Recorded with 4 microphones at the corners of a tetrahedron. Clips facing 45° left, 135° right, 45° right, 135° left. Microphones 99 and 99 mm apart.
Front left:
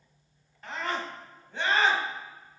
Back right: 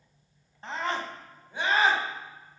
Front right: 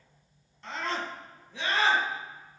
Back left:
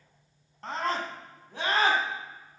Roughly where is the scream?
Behind.